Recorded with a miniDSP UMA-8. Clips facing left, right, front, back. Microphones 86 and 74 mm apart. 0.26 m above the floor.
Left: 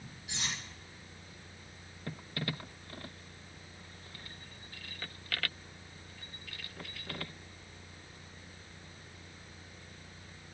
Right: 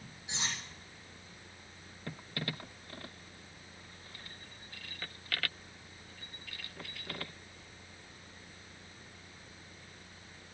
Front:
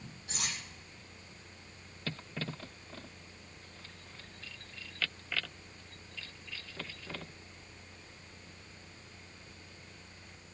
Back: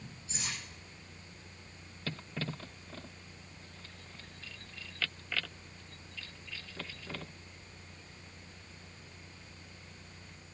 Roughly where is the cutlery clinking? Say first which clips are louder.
Right 1 dB, front 1 dB; ahead right.